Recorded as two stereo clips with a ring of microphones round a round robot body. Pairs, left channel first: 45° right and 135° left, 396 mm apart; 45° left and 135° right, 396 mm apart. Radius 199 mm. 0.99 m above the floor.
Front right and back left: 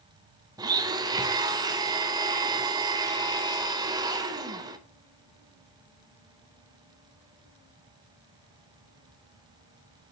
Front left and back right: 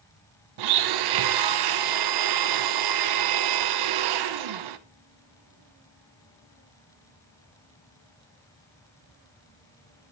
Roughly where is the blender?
Behind right.